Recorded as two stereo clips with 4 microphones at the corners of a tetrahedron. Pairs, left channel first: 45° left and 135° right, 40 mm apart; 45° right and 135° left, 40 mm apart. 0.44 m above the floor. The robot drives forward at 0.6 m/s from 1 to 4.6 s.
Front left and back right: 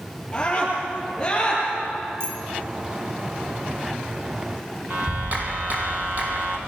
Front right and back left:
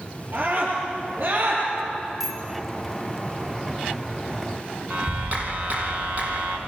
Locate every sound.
0.3 s a scream: 115° left, 9.5 m
2.2 s a bicycle bell: 145° right, 3 m
4.9 s a clap: straight behind, 3.5 m